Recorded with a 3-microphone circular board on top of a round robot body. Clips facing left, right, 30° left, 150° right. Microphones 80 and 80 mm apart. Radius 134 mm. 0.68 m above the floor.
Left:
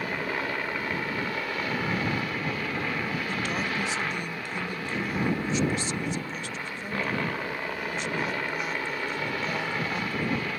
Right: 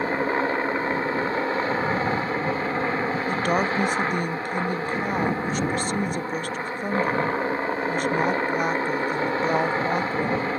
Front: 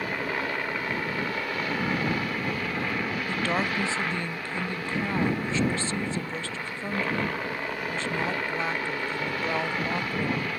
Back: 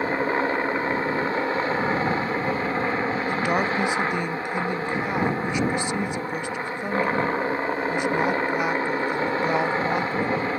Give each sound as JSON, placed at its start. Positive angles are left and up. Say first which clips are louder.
{"t": 0.0, "sound": "a helicopter", "louder": "right 7 dB, back 7 dB", "azimuth_deg": -115}
{"t": 3.3, "sound": "a woman speaking", "louder": "right 7 dB, back 3 dB", "azimuth_deg": -80}